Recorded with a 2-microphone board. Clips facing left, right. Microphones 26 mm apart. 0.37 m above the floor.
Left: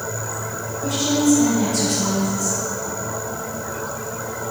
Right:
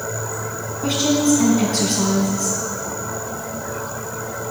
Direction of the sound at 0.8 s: 60° right (ahead or behind).